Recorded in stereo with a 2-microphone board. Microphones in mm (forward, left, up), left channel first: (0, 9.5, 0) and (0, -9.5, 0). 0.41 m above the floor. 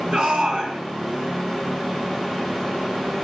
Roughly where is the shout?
Right.